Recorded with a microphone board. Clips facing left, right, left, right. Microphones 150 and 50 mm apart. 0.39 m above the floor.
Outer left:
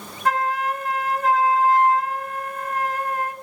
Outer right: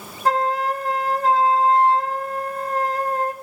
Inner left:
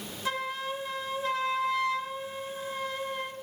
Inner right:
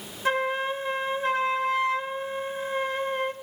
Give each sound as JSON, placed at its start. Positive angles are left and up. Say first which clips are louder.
{"t": 0.2, "sound": "a flute", "louder": "outer right 2 dB, inner right 7 dB", "side_deg": -35, "distance_m": 0.7}